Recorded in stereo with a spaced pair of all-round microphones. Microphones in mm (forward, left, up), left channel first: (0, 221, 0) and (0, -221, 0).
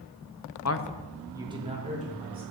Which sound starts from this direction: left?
A man speaking, at 0.7 s.